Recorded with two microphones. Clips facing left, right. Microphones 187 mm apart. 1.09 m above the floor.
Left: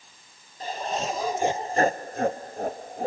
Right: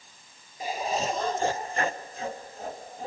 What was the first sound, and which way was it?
Laughter, 10° right (ahead or behind).